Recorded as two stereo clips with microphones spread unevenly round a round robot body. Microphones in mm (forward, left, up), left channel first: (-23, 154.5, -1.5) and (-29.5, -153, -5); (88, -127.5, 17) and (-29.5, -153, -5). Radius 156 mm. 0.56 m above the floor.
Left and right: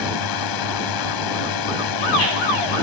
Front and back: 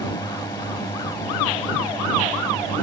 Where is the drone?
85° left.